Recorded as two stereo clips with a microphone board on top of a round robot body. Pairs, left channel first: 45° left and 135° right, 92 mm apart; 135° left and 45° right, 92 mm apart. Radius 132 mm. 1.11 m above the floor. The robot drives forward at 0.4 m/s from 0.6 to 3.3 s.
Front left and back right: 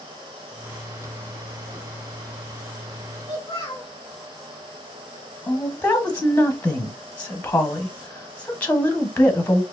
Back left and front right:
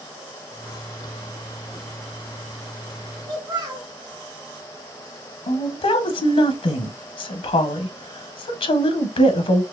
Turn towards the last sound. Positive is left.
turn(degrees=120)